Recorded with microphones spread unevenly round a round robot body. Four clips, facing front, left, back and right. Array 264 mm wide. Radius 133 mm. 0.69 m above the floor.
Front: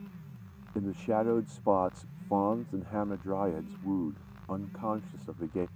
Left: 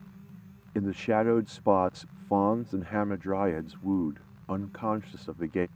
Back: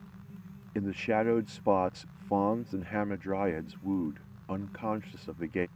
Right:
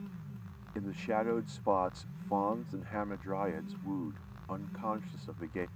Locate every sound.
0.8 s a man speaking: 90° left